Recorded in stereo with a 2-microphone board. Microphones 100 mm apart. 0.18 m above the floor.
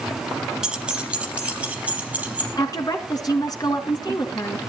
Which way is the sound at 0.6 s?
10° right (ahead or behind).